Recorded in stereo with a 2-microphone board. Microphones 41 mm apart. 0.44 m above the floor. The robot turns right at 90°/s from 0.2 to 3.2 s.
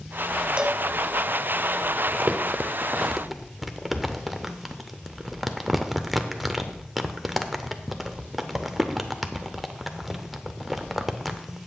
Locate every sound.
0.6 s a cowbell: 25° right (ahead or behind), 0.6 m; by 0.8 s centre (ahead or behind), 0.6 m
2.1 s crumpling: 40° right (ahead or behind), 0.6 m; by 11.6 s 5° right (ahead or behind), 0.6 m